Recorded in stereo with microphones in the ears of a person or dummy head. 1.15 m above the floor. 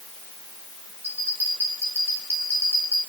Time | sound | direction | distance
1.0 | a bell | 15° right (ahead or behind) | 6.5 m